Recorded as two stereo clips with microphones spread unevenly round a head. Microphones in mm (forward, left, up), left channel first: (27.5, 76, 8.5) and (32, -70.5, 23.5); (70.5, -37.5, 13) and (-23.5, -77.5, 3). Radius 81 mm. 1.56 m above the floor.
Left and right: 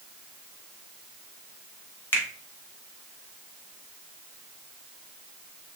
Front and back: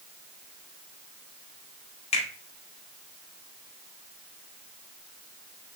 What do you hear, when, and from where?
2.1 s a finger snap: 15° left, 1.3 m